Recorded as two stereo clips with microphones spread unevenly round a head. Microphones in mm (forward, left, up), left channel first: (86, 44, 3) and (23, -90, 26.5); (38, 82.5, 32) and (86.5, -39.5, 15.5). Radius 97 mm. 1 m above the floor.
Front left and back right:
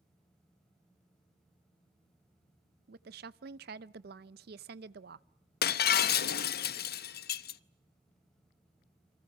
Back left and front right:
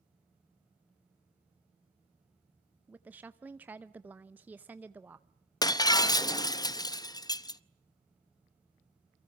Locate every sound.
2.9 s a woman speaking: 145° right, 0.6 m
5.6 s breaking glass: 50° left, 0.7 m